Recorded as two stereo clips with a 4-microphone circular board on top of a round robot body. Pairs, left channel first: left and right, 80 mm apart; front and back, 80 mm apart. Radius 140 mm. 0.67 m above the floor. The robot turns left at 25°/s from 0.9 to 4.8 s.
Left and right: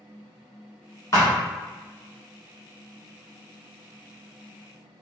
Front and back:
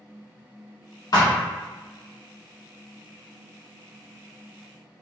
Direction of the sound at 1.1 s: 35° left.